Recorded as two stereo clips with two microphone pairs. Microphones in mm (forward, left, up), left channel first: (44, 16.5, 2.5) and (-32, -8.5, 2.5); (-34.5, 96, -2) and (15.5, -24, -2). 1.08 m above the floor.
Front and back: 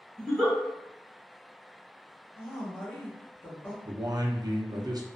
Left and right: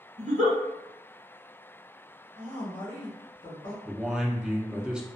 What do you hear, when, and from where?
0.2 s a giggle: 65° right, 1.0 m
2.4 s a woman speaking: 70° left, 1.2 m
3.9 s a man speaking: 155° right, 0.5 m